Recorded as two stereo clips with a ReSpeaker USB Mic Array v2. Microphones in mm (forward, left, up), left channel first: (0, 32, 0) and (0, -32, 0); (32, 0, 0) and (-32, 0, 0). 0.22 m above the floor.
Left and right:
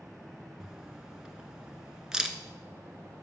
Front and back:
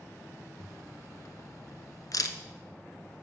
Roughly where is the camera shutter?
Ahead.